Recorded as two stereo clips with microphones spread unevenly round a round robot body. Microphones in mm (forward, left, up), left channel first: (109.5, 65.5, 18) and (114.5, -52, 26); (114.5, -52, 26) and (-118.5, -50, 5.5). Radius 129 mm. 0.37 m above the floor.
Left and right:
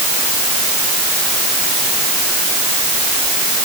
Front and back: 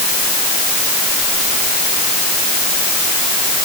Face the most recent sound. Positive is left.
No sound to turn to.